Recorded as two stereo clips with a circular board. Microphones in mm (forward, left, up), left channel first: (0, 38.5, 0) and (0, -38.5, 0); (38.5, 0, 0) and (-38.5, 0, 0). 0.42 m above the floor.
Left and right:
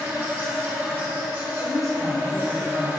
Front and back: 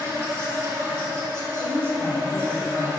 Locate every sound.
0.0 s an insect: 135° right, 1.7 m
1.6 s a woman speaking: 125° right, 1.9 m